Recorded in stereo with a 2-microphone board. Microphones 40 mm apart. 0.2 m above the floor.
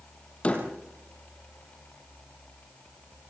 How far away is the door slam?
About 5 m.